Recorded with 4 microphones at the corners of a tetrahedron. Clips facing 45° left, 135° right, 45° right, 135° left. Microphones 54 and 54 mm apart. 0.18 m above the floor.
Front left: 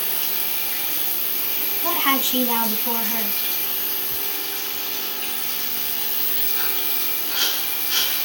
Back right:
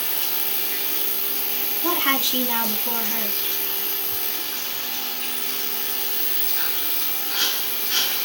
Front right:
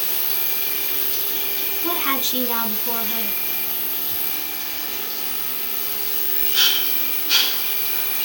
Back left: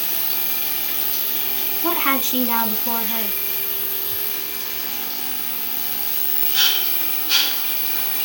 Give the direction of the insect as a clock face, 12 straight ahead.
11 o'clock.